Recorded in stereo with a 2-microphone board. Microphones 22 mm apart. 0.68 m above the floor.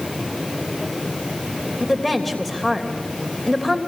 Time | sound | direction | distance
1.8 | a woman speaking | 5° left (ahead or behind) | 3 m